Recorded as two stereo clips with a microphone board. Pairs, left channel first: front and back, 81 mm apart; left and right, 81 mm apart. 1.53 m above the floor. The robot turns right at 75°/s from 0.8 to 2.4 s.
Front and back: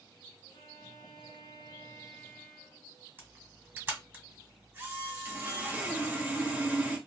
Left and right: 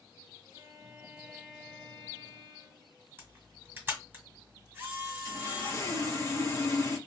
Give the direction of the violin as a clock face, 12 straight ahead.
1 o'clock.